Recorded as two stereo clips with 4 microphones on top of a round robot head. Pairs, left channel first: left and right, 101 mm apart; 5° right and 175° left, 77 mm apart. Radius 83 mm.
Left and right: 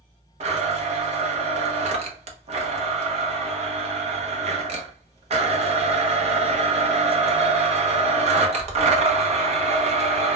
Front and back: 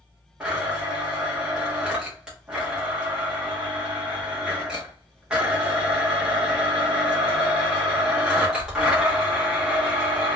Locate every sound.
0.4 s a blender: 100° right, 0.7 m